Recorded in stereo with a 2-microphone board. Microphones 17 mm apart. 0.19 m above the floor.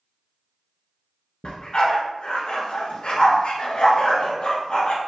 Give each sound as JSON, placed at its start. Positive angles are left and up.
{"t": 1.4, "sound": "a dog barking", "side_deg": 65, "distance_m": 1.2}